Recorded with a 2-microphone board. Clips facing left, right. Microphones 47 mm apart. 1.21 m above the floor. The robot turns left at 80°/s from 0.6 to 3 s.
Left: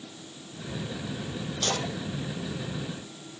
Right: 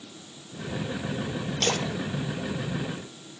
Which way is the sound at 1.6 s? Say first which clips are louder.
Right 3 dB; 75° right (ahead or behind).